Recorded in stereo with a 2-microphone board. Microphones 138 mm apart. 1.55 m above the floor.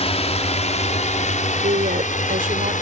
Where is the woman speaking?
80° right.